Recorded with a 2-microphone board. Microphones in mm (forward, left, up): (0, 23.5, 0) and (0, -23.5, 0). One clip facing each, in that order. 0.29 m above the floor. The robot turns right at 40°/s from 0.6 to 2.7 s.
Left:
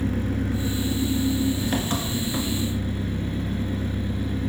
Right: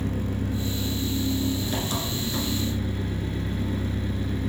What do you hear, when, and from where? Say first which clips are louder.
0.0 s an engine running: left 3 dB; 95° left, 1.4 m; by 4.5 s 175° left, 1.4 m